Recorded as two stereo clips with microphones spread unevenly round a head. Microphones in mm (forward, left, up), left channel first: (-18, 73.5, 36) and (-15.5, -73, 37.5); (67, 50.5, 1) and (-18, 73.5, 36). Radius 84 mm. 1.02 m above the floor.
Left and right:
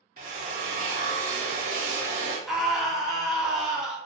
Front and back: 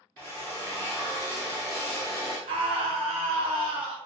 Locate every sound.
0.2 s a drill: 105° right, 0.5 m
2.5 s a scream: straight behind, 0.9 m